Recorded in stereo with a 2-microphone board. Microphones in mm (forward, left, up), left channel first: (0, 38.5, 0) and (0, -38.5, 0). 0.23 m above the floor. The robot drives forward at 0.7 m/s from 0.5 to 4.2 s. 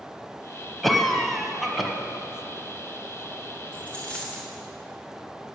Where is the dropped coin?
15° left (ahead or behind), 3.5 m.